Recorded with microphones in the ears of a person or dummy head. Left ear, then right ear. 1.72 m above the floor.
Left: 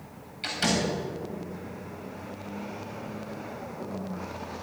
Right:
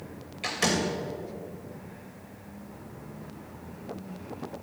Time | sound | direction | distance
0.4 | a door slam | 25° right (ahead or behind) | 2 m